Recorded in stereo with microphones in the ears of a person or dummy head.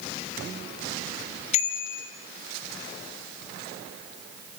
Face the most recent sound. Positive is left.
turn(degrees=45)  # may be behind; listen again after turning